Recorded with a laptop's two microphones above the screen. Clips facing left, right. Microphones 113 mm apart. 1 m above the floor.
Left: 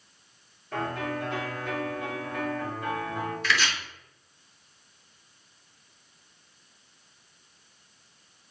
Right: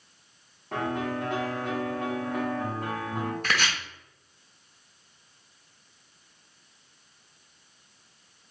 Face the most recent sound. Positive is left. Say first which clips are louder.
# left 3 dB
turn(degrees=-50)  # may be behind; listen again after turning